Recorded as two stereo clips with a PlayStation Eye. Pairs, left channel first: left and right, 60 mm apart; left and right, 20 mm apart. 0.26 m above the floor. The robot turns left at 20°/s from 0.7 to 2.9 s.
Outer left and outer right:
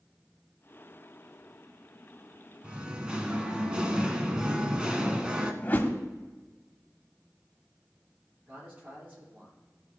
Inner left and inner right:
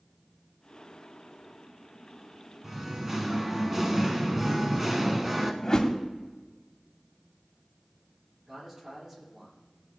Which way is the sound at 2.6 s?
20° right (ahead or behind).